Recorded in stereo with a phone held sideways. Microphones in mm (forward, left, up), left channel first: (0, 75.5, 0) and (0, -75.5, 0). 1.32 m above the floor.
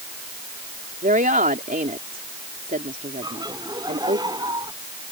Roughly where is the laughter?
Right.